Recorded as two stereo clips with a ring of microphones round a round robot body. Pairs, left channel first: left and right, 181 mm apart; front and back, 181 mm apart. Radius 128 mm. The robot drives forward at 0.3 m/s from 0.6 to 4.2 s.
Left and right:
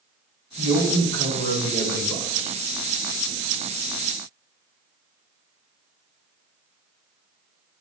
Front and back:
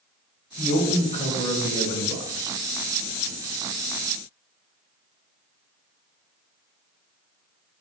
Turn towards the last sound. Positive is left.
turn(degrees=105)